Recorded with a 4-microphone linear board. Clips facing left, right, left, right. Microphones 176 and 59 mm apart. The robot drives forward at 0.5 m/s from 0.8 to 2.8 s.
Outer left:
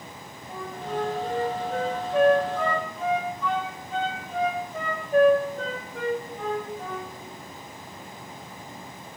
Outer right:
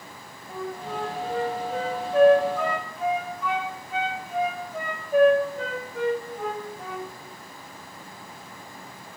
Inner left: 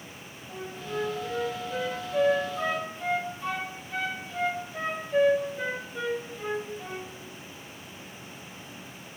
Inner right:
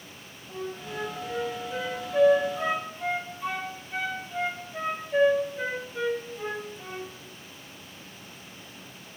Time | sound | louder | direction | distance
0.5 | a flute | even, even | centre (ahead or behind) | 1.4 m